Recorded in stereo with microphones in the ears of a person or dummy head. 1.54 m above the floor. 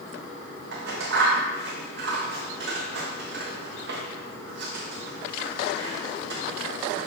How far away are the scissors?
About 1.2 m.